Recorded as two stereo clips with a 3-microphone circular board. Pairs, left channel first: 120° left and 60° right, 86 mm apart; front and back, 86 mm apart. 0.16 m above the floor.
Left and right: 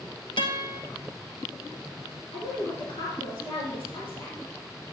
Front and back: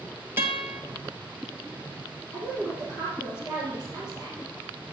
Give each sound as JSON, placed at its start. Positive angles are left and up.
{"t": 0.4, "sound": "a guitar", "azimuth_deg": 115, "distance_m": 1.5}
{"t": 2.3, "sound": "a woman speaking", "azimuth_deg": 135, "distance_m": 6.0}